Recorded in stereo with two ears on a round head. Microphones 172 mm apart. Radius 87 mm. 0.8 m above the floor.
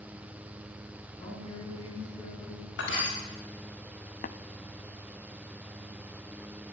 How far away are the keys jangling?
No keys jangling in this recording.